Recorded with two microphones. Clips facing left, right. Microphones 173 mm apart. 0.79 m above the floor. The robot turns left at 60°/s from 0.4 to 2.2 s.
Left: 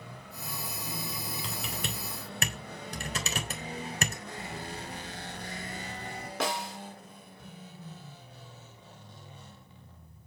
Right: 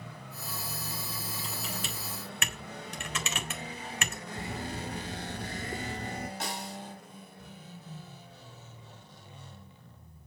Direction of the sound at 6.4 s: 85° left.